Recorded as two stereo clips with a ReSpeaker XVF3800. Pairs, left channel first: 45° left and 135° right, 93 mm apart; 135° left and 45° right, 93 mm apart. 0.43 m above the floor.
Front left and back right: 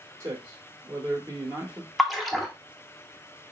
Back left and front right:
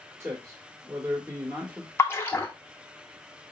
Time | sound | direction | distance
0.2 | a man speaking | 100° right | 1.0 m
2.0 | a splash | 135° left | 0.7 m